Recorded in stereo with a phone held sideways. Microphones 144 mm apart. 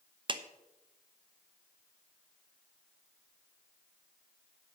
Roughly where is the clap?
Right.